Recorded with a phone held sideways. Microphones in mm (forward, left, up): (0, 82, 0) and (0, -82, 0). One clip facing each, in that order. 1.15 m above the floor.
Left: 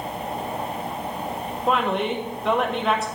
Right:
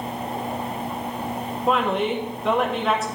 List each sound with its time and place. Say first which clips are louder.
1.7 s a woman speaking: right 1 dB; centre (ahead or behind), 0.9 m